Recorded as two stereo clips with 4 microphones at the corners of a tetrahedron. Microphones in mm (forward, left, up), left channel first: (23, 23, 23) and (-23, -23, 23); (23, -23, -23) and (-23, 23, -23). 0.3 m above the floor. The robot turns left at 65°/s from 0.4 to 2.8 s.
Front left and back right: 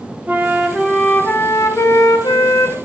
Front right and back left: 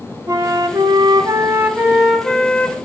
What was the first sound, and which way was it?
A flute, 160° left.